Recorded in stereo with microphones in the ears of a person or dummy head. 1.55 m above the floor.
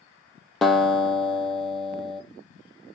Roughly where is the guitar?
Centre.